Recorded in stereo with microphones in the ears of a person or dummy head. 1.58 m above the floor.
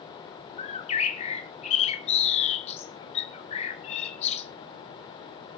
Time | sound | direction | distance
0.6 | a bird | 40° left (ahead or behind) | 1.2 m